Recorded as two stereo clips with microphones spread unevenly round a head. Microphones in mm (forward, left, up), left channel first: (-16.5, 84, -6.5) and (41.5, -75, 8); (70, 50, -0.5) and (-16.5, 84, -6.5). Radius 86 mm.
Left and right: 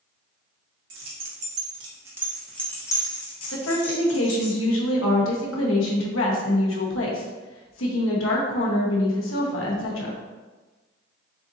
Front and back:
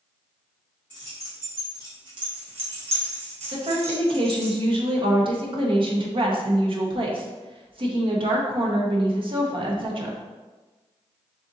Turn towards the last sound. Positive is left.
turn(degrees=130)